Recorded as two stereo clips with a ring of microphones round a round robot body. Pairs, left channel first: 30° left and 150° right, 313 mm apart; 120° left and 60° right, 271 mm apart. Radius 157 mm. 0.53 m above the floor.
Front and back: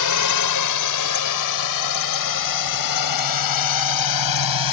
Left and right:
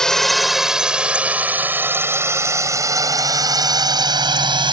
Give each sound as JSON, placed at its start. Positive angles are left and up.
{"t": 0.0, "sound": "a drone", "azimuth_deg": 30}